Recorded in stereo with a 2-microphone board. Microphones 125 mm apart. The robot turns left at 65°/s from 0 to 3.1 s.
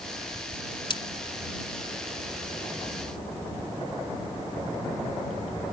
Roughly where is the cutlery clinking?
Left.